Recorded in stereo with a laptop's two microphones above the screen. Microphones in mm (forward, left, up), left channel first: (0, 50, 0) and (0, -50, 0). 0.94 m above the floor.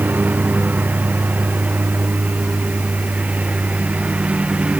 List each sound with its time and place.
0.0 s a lawn mower: 15° right (ahead or behind); by 4.8 s 10° right (ahead or behind)